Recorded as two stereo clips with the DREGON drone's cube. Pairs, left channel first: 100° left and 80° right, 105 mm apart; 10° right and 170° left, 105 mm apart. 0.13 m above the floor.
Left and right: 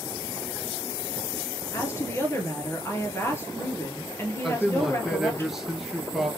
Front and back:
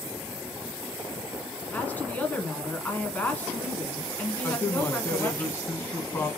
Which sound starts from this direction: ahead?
A man speaking, at 4.4 s.